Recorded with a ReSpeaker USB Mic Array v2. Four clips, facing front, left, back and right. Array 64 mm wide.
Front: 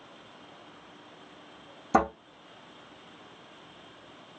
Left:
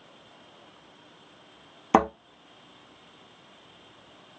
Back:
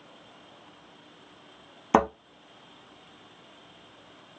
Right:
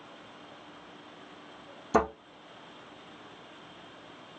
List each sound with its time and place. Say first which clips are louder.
1.9 s a thud: left 5 dB, back 2 dB; 130° left, 1.8 m